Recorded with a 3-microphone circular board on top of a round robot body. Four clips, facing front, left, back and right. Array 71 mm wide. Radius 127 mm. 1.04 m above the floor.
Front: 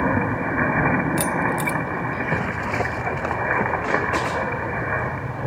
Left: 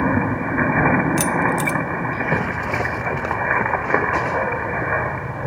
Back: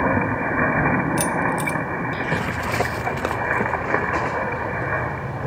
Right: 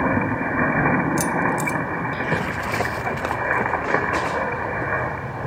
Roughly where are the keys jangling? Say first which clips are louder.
Left 2 dB, back 1 dB; ahead left.